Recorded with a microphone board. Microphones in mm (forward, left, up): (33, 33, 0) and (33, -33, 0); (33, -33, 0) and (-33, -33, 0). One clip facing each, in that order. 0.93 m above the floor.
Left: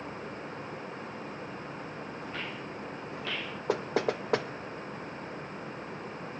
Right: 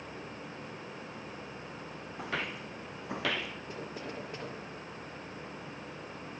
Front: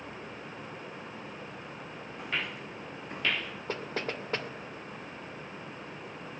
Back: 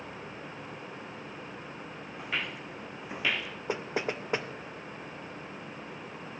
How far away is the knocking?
About 2 m.